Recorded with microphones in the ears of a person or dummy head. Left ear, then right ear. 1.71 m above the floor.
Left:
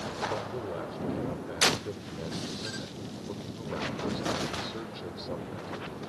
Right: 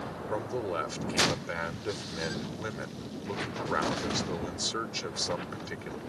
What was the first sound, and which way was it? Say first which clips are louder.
A man speaking: right 2 dB; 65° right (ahead or behind).